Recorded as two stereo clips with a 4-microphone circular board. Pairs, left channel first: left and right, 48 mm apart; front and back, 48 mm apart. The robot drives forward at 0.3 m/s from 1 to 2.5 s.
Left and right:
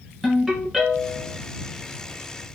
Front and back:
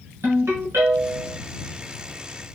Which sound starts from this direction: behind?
A ringtone, at 0.2 s.